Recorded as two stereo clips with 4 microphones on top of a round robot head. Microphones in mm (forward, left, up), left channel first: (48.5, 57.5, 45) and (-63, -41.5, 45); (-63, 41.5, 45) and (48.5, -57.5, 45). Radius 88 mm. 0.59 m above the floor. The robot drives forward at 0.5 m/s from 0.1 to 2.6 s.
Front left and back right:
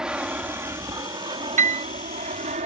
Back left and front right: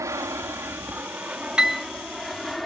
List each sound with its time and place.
0.0 s an aircraft: 65° right; by 2.7 s 135° right
1.6 s a piano: 125° right; by 1.9 s 135° right